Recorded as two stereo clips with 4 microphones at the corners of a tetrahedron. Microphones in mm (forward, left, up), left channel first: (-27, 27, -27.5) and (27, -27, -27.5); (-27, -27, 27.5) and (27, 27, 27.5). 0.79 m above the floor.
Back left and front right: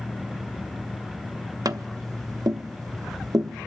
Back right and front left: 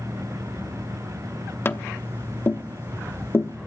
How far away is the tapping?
About 0.8 m.